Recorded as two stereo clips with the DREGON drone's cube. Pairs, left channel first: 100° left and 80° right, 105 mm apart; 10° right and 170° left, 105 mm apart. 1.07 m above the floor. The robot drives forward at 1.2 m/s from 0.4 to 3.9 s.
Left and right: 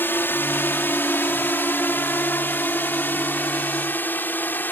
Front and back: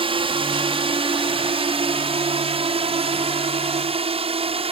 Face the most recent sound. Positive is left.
turn(degrees=170)